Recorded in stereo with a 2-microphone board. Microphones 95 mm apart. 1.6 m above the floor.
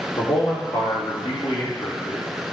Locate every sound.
0.2 s a man speaking: 55° left (ahead or behind), 3 m